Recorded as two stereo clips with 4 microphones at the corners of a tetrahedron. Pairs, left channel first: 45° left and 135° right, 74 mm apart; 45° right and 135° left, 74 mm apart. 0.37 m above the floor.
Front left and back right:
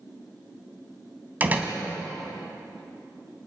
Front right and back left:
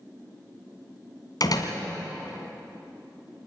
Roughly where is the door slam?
Right.